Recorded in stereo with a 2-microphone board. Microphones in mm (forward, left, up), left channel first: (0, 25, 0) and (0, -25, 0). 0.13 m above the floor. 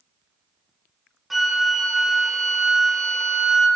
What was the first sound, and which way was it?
A flute, centre (ahead or behind).